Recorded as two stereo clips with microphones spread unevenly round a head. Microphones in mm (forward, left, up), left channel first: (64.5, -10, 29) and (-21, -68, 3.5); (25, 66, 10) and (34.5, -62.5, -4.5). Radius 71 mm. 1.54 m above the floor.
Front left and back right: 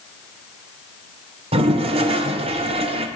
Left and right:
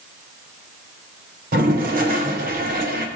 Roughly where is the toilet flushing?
Behind right.